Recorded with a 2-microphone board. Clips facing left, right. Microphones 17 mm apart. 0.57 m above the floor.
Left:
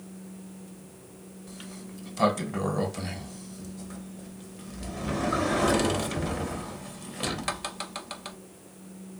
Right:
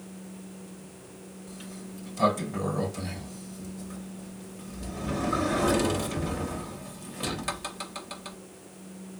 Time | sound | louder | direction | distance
1.5 | a sliding door | even | 20° left (ahead or behind) | 0.6 m